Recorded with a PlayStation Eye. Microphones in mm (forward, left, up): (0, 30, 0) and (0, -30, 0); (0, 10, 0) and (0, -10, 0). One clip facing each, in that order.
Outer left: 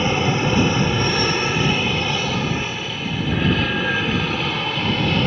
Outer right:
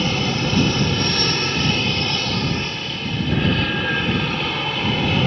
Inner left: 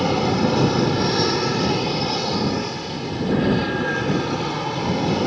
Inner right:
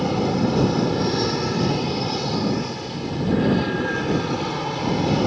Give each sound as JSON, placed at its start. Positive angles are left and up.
{"t": 0.0, "sound": "an aircraft", "side_deg": 20}